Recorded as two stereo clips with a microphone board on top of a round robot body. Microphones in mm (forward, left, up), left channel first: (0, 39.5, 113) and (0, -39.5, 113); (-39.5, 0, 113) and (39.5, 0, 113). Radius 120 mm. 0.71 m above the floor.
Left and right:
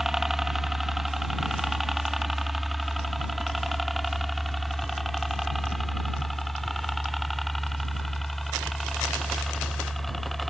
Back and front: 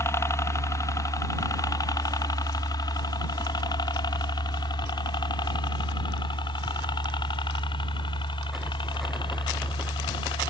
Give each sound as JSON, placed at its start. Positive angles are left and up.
{"t": 0.0, "sound": "a helicopter", "azimuth_deg": -175}